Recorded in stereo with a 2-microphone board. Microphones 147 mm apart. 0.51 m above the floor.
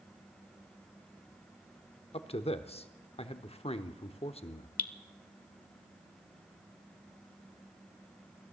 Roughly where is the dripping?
Left.